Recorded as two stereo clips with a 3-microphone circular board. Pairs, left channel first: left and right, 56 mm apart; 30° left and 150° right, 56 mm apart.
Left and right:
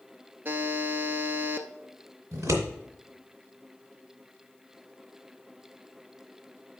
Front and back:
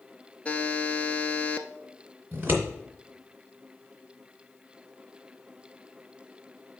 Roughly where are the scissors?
Right.